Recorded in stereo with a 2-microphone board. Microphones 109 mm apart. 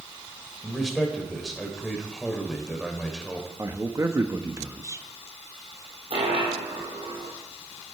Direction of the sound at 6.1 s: 55° right (ahead or behind).